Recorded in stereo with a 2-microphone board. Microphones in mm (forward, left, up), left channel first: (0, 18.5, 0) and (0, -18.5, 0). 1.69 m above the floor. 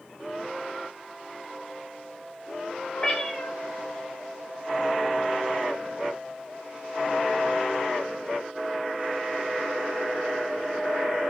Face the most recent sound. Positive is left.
turn(degrees=20)  # may be behind; listen again after turning